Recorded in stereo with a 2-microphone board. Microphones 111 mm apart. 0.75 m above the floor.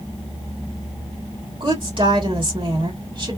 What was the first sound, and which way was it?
A woman speaking, 45° right (ahead or behind).